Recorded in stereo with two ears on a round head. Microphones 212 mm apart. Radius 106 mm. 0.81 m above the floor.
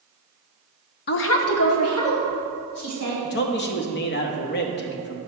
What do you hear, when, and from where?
1.1 s a woman speaking: 40° left (ahead or behind), 0.5 m; by 3.1 s 75° left (ahead or behind), 3.5 m
3.2 s a man speaking: 45° left (ahead or behind), 0.8 m